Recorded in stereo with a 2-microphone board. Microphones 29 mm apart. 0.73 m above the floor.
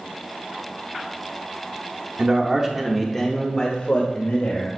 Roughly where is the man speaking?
Right.